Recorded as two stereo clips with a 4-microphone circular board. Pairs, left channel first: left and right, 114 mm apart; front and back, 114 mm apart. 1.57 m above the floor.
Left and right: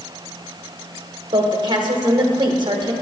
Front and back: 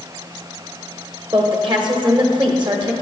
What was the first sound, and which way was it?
A woman speaking, 140° right.